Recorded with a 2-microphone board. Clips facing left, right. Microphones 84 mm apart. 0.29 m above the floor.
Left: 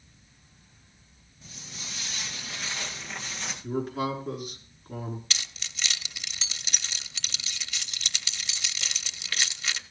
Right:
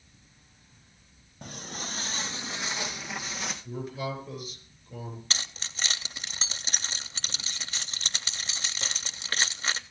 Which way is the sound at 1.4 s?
60° right (ahead or behind).